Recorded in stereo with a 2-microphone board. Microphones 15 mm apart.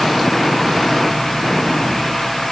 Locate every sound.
Only background noise.